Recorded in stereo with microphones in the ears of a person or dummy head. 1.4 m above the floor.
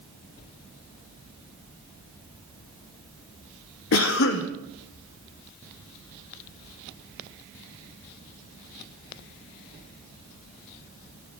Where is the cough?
60° left (ahead or behind), 0.6 m.